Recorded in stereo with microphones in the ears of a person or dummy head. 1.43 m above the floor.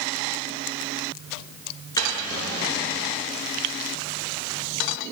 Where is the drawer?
20° left (ahead or behind), 9 m.